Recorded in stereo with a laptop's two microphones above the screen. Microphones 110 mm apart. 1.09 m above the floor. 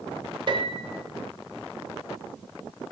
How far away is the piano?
About 1.1 m.